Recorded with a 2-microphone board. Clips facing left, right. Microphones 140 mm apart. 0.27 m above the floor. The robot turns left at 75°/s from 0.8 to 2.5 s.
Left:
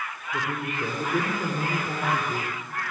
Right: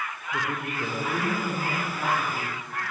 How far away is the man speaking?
About 5.5 m.